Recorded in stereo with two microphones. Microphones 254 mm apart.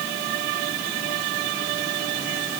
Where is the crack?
I don't hear a crack.